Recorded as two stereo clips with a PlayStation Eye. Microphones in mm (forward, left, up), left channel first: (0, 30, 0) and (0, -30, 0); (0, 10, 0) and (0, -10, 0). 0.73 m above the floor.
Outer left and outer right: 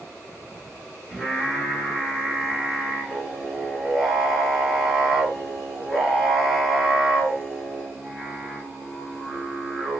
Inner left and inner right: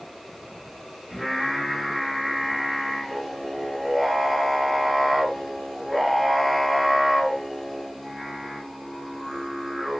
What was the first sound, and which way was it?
Singing, centre (ahead or behind).